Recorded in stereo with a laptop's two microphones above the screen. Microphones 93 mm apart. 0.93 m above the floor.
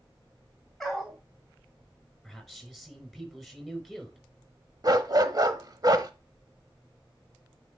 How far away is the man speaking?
About 4.5 m.